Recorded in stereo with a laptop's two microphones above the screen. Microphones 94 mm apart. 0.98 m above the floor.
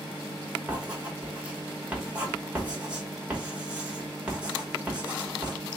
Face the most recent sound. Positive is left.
turn(degrees=-15)  # may be behind; listen again after turning